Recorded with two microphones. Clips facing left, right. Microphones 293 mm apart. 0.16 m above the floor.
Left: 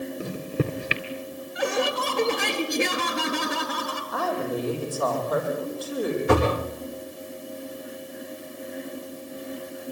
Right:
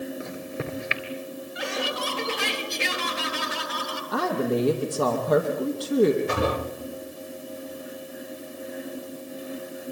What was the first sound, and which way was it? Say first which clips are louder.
A microwave: left 5 dB; 40° left (ahead or behind).